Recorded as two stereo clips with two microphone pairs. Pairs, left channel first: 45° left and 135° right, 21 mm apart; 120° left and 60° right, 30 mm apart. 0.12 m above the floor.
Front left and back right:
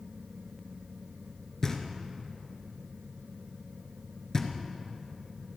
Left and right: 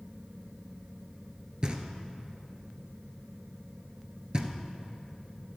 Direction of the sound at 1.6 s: 20° right.